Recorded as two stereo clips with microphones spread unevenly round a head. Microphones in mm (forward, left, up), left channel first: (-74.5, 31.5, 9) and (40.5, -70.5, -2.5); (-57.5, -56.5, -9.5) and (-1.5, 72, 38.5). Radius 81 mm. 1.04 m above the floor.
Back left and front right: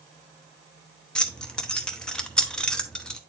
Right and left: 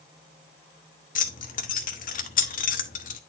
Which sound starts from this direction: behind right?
Keys jangling, at 1.1 s.